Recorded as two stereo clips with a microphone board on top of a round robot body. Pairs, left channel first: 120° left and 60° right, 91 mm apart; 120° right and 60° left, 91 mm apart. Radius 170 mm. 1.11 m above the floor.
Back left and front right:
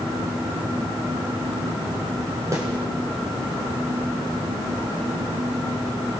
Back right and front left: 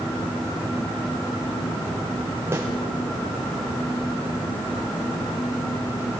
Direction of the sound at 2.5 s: 5° right.